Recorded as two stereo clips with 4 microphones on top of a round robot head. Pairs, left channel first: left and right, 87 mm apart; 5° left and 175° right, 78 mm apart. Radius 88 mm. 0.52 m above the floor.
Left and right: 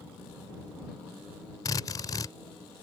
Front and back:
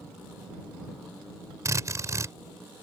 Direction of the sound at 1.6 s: 140° left.